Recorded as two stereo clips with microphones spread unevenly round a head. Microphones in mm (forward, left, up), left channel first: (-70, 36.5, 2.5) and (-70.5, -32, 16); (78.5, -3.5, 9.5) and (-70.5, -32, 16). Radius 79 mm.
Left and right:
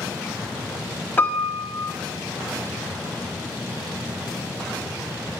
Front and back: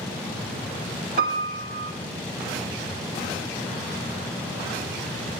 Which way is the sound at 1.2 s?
155° left.